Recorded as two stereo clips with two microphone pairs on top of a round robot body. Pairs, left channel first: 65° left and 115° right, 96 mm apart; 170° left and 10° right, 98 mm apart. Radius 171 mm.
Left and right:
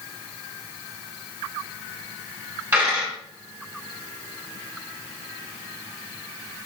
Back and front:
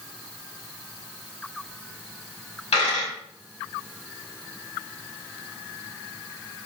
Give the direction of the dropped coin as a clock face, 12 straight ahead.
6 o'clock.